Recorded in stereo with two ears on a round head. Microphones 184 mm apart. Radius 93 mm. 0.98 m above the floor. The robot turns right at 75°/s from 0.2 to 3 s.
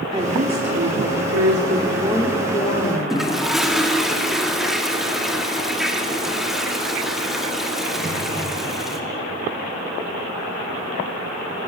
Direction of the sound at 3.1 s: Centre (ahead or behind).